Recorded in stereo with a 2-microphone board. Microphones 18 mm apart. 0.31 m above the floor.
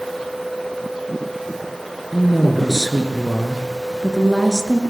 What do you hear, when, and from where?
2.1 s a woman speaking: 15° right (ahead or behind), 4.5 m